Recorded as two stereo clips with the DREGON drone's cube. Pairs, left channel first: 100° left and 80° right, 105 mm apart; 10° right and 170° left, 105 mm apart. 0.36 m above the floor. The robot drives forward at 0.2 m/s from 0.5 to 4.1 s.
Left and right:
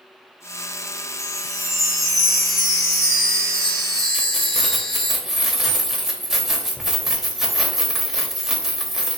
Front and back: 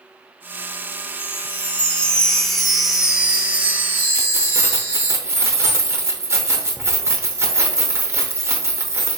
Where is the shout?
I don't hear a shout.